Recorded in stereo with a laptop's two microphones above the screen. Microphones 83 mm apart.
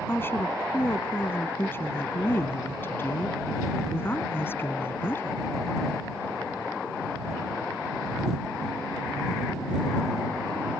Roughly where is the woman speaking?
Left.